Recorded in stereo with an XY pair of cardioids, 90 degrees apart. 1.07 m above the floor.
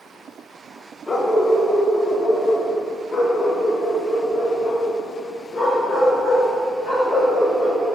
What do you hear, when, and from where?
1.1 s a dog barking: 30° left, 1.9 m; by 8.0 s 80° left, 8 m